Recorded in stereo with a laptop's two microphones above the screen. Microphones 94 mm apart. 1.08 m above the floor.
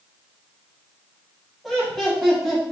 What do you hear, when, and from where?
1.6 s laughter: centre (ahead or behind), 1.7 m